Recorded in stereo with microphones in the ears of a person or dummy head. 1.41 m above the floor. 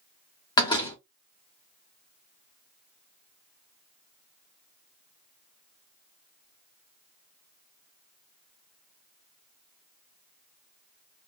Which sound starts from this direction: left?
A door slam, at 0.6 s.